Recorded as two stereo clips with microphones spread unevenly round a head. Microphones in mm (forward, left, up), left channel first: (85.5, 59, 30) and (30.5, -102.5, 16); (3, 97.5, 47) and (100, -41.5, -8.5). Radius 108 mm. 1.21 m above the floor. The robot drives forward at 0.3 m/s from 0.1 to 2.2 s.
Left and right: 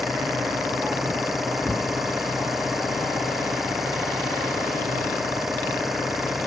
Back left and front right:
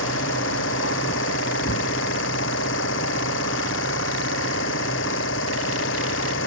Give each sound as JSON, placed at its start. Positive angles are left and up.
{"t": 0.0, "sound": "an engine running", "azimuth_deg": 160}